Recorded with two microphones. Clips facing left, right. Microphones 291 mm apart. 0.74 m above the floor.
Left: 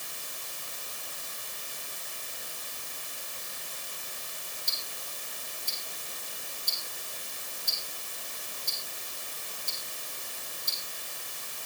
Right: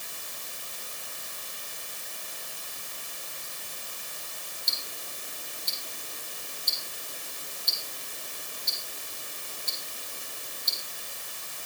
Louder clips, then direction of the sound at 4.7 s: Right 1 dB; 45° right (ahead or behind).